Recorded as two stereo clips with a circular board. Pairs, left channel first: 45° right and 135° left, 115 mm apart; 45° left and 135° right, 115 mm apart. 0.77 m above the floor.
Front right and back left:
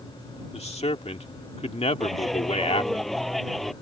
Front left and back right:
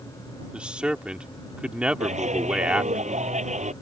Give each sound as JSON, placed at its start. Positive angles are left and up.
{"t": 0.5, "sound": "a man speaking", "azimuth_deg": -55}
{"t": 2.0, "sound": "a clap", "azimuth_deg": -135}